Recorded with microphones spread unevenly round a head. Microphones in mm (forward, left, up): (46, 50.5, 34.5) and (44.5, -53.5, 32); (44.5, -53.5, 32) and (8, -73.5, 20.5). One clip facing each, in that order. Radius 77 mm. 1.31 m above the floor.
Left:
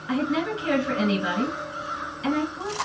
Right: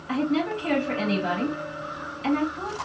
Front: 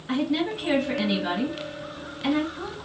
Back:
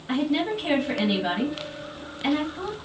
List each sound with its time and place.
0.1 s a woman speaking: 115° left, 2.5 m